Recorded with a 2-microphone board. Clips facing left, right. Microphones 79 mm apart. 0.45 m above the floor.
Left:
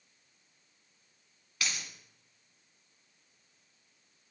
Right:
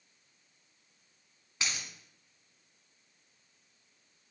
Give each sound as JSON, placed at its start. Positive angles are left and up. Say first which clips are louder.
{"t": 1.6, "sound": "a dropped coin", "louder": "even", "side_deg": -25, "distance_m": 2.0}